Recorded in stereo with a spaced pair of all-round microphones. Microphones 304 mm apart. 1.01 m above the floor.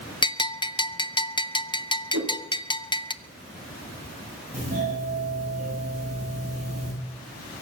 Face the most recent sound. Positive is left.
turn(degrees=-30)  # may be behind; listen again after turning